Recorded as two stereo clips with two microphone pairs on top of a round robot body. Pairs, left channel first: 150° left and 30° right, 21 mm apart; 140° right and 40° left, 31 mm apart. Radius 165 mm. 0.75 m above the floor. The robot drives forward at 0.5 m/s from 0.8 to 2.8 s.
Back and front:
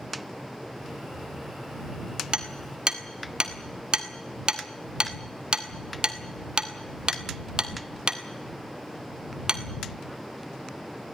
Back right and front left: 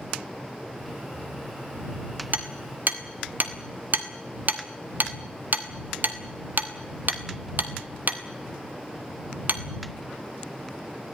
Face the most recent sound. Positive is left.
turn(degrees=15)